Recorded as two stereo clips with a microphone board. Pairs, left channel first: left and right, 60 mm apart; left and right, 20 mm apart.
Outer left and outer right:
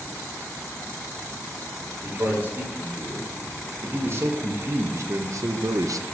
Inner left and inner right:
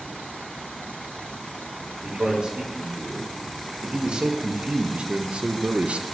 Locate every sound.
2.0 s a man speaking: 35° right (ahead or behind), 3 m; by 6.0 s 70° right (ahead or behind), 0.6 m